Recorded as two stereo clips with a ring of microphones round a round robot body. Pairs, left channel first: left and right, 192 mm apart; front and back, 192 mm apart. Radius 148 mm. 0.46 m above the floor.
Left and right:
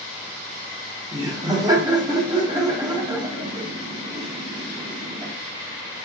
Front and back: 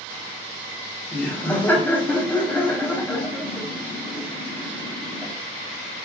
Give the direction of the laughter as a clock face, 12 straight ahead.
2 o'clock.